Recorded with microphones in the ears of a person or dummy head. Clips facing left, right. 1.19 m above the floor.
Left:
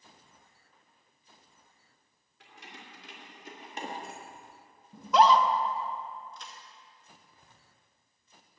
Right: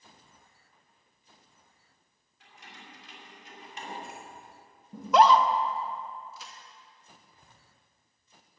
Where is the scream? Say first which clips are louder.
Right 2 dB; 55° right (ahead or behind), 1.0 m.